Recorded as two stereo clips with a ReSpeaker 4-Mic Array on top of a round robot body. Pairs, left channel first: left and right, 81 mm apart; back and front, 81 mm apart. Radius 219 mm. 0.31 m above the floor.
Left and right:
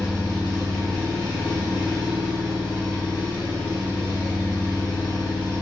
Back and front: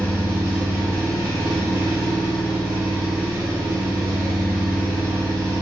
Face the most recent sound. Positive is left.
turn(degrees=65)